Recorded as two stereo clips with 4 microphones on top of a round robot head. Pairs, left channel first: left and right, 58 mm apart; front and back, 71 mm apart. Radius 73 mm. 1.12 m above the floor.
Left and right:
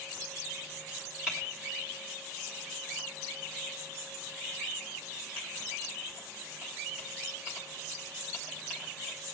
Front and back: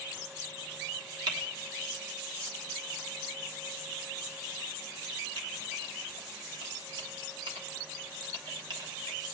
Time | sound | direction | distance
1.3 | typing on a keyboard | 175° right | 1.3 m